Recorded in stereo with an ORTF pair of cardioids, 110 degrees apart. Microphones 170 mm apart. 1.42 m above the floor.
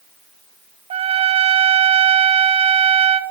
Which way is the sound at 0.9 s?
35° right.